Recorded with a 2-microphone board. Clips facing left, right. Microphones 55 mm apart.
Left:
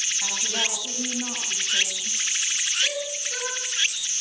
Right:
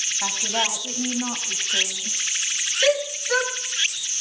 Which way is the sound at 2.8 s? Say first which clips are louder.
Right 8 dB; 70° right (ahead or behind).